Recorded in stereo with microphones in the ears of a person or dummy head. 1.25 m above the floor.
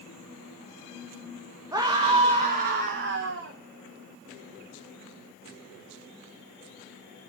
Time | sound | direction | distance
1.7 | a scream | 20° right (ahead or behind) | 1.4 m